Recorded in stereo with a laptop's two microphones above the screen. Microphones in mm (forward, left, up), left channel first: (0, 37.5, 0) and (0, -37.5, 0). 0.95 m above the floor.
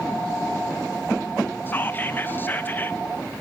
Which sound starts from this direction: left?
Whispering, at 1.7 s.